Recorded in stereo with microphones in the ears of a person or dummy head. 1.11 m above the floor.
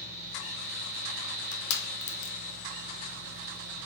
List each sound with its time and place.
0.0 s a fan: 65° right (ahead or behind), 1.0 m
1.2 s crushing: 70° left (ahead or behind), 0.6 m